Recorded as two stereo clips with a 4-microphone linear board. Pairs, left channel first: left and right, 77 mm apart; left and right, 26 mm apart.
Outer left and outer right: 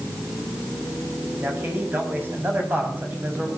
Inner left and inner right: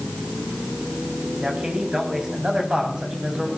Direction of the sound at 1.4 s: 25° right (ahead or behind).